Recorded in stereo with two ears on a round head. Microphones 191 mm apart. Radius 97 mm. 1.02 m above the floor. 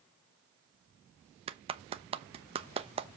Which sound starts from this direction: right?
A clap, at 1.5 s.